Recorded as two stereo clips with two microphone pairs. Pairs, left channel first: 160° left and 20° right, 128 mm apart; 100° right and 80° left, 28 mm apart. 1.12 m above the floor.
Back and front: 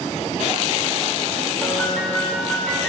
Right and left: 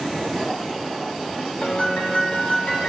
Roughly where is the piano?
Behind right.